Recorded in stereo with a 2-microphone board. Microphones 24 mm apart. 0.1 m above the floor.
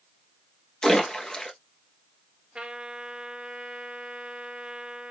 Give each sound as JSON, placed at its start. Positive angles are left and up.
{"t": 0.8, "sound": "a splash", "side_deg": 35, "distance_m": 1.1}
{"t": 2.5, "sound": "a trumpet", "side_deg": -45, "distance_m": 1.6}